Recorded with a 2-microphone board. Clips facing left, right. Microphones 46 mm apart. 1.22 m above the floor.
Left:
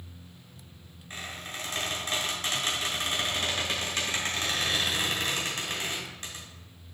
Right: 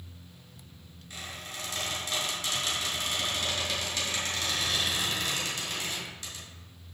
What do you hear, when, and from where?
1.1 s a squeak: 40° left (ahead or behind), 2.5 m